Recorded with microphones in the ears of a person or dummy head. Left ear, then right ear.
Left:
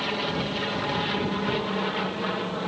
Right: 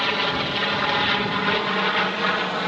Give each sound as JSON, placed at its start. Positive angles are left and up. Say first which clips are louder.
{"t": 0.0, "sound": "an aircraft", "louder": "right 6 dB", "side_deg": -40}